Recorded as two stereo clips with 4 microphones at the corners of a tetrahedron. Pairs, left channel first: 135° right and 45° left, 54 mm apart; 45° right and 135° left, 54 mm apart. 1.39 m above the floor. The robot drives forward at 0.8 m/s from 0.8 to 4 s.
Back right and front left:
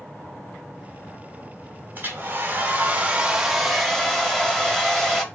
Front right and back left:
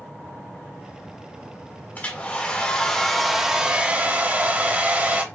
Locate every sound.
1.9 s a hair dryer: 10° left, 1.5 m; by 5.2 s 155° left, 1.0 m